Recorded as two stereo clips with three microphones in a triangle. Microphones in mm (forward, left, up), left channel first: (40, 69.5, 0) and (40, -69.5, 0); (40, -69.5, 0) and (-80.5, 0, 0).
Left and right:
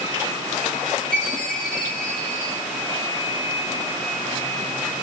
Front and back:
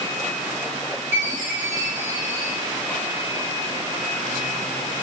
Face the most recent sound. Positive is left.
turn(degrees=-65)